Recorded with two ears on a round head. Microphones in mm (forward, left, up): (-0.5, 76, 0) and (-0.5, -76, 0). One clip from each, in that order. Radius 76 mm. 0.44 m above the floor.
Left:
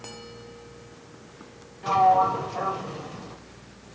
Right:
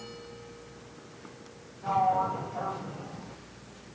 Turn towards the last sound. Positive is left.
turn(degrees=70)  # may be behind; listen again after turning